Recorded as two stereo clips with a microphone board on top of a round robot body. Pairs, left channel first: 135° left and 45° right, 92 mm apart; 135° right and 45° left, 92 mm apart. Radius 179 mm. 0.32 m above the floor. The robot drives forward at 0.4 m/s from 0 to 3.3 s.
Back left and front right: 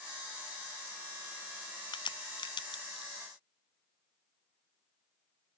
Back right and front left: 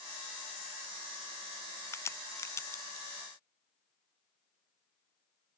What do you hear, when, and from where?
1.9 s a crack: 165° left